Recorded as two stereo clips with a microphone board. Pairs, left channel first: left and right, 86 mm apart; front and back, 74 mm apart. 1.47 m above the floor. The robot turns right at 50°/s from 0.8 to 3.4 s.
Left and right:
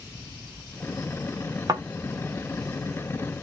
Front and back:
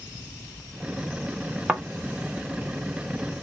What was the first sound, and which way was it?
A thud, 110° right.